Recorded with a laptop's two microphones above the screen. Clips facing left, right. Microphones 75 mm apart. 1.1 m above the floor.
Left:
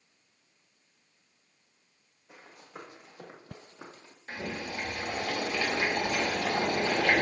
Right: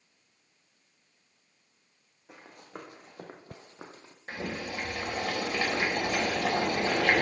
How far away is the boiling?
About 3.5 m.